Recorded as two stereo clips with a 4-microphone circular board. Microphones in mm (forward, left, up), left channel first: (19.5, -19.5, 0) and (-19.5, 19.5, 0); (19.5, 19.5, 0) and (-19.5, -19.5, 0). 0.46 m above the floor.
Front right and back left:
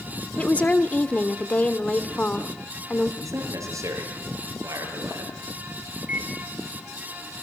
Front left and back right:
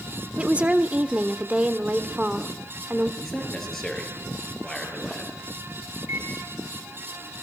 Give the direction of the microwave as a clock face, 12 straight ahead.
6 o'clock.